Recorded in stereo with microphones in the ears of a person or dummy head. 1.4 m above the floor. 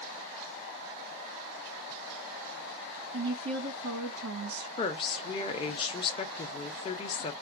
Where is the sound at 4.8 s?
30° left (ahead or behind), 0.8 m.